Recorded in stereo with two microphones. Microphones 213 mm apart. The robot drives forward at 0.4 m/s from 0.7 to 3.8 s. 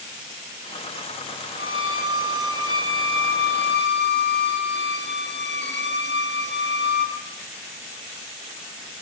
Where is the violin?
70° left (ahead or behind), 0.9 m; by 7.2 s 55° left (ahead or behind), 1.0 m.